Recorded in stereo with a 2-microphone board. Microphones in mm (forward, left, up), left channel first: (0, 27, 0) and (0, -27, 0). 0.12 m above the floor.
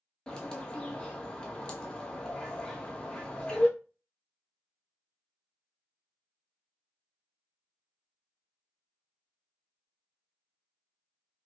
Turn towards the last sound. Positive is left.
turn(degrees=15)  # may be behind; listen again after turning